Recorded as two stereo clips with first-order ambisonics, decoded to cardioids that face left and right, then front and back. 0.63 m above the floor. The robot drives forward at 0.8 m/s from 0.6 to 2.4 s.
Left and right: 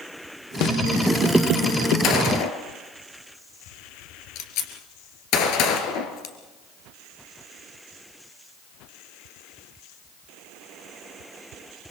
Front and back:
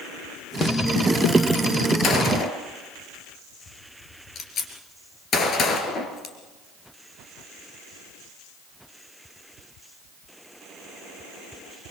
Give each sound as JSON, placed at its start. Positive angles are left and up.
{"t": 0.6, "sound": "a snare drum", "azimuth_deg": 60, "distance_m": 0.9}
{"t": 2.0, "sound": "a gunshot", "azimuth_deg": 50, "distance_m": 2.5}